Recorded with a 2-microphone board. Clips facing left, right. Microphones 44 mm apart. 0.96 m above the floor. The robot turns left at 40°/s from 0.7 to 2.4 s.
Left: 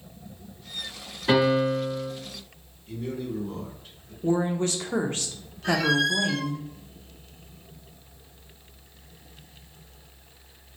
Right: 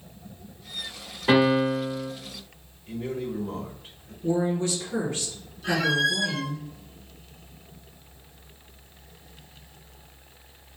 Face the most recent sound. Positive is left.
turn(degrees=-10)  # may be behind; listen again after turning